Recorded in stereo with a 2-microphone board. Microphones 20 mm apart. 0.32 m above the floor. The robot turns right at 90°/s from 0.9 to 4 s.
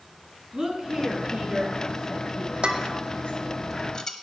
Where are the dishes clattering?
50° right (ahead or behind), 1.0 m; by 4.1 s 35° left (ahead or behind), 1.0 m.